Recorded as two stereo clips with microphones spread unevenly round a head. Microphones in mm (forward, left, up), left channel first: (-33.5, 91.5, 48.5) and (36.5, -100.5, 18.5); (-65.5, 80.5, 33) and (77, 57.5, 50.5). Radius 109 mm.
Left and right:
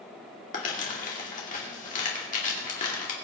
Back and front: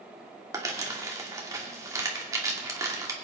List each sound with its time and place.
0.5 s crumpling: 55° left, 2.5 m